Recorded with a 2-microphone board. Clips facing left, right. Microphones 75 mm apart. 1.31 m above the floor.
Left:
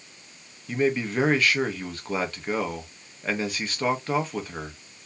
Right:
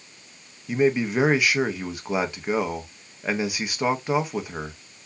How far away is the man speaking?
About 0.8 m.